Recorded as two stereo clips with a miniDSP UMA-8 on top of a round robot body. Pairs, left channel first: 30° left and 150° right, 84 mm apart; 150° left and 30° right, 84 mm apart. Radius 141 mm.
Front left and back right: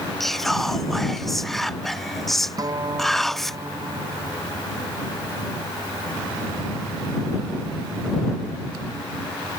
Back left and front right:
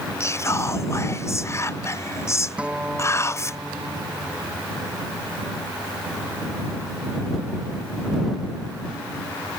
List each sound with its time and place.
0.2 s whispering: 115° left
2.6 s a guitar: 105° right